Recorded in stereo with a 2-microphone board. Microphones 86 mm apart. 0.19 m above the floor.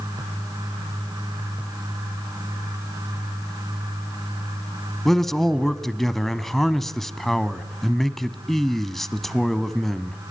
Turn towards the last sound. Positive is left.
turn(degrees=5)  # may be behind; listen again after turning